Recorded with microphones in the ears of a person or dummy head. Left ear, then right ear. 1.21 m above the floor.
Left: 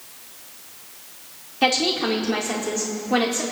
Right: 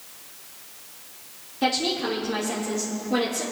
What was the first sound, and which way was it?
A woman speaking, 30° left (ahead or behind).